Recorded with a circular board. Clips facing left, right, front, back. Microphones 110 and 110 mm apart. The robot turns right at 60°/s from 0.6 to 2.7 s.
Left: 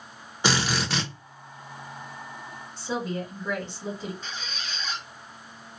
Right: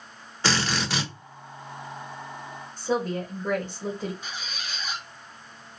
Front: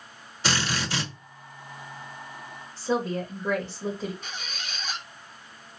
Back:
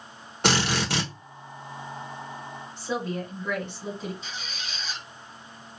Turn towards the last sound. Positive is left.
turn(degrees=-10)